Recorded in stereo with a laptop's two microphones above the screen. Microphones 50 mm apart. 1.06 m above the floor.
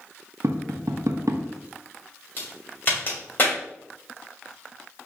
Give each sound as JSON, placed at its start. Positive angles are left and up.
{"t": 0.4, "sound": "tapping", "side_deg": -80, "distance_m": 0.5}
{"t": 2.4, "sound": "a crack", "side_deg": 40, "distance_m": 2.5}